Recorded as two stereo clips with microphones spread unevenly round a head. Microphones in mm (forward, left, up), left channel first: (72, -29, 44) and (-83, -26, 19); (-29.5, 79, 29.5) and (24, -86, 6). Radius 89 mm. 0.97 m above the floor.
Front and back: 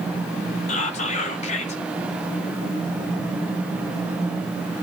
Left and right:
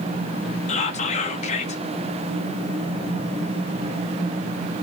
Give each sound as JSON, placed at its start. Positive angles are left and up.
{"t": 0.7, "sound": "whispering", "azimuth_deg": 55, "distance_m": 1.3}